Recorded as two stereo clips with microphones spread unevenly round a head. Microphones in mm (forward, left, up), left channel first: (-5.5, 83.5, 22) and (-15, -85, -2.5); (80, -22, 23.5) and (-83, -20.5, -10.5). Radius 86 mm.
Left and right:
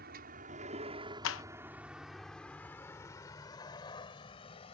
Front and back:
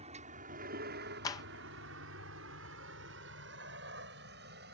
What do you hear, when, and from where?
0.0 s a vehicle: 125° right; by 4.7 s 145° left
1.2 s a clap: 70° left